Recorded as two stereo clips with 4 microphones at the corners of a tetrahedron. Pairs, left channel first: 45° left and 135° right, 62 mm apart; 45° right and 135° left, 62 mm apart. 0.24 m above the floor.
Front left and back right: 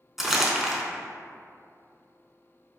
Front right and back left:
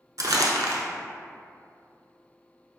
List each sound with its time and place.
0.2 s crumpling: 140° left, 0.6 m